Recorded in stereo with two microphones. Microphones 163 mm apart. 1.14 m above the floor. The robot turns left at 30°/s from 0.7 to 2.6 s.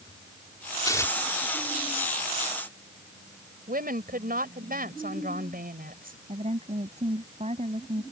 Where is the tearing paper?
25° left (ahead or behind); by 1.1 s 15° left (ahead or behind).